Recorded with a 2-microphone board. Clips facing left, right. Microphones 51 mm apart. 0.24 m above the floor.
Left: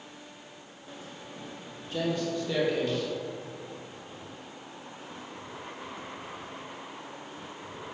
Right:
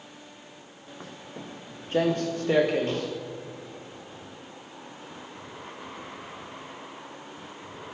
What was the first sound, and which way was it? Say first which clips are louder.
Footsteps: right 3 dB; 50° right (ahead or behind).